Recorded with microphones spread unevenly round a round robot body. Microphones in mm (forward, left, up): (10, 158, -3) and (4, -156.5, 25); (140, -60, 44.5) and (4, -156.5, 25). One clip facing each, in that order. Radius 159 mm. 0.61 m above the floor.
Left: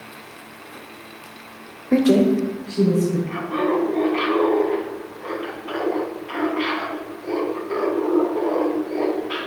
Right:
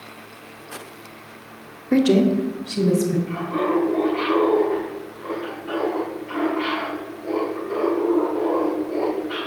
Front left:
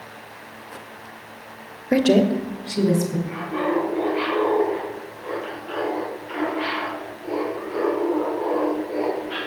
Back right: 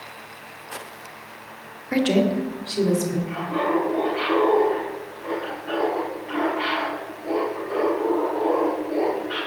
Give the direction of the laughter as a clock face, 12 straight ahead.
6 o'clock.